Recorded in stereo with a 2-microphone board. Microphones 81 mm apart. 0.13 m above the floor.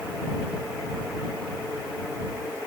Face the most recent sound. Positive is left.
No sound to turn to.